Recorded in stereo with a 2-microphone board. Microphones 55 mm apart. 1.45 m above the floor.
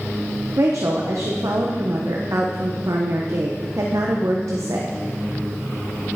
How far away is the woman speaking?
About 1.0 m.